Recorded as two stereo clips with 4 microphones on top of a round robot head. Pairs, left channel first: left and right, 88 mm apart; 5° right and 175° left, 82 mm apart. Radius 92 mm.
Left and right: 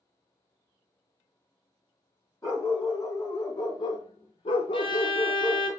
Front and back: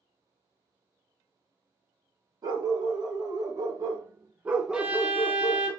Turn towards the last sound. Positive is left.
turn(degrees=100)